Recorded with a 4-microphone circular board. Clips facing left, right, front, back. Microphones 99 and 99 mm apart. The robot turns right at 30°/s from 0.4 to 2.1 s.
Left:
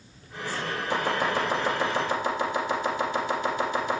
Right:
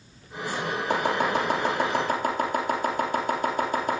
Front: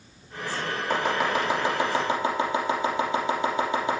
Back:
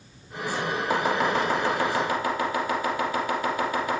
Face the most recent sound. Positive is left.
turn(degrees=-65)